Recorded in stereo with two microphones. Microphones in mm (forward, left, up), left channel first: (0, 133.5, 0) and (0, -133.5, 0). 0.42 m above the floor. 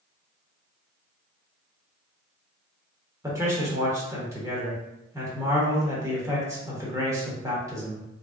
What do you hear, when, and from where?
3.2 s a man speaking: 10° right (ahead or behind), 0.9 m